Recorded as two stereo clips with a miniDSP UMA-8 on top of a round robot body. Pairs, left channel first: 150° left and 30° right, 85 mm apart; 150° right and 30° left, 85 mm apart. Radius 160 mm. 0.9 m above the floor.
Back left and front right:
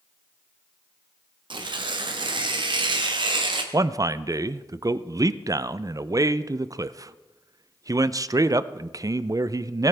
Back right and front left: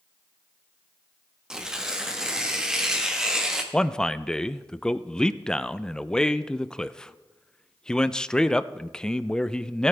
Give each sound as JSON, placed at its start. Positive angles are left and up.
{"t": 1.5, "sound": "tearing paper", "azimuth_deg": -55, "distance_m": 1.3}
{"t": 3.7, "sound": "a man speaking", "azimuth_deg": -70, "distance_m": 0.6}